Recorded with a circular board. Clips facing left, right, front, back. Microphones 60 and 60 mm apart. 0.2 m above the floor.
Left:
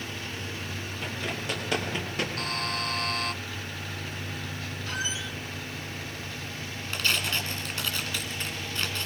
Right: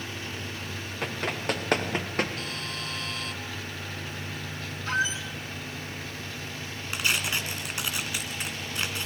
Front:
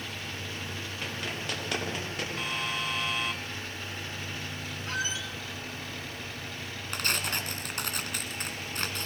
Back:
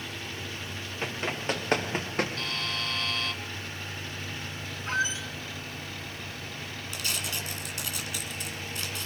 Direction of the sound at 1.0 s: 120° right.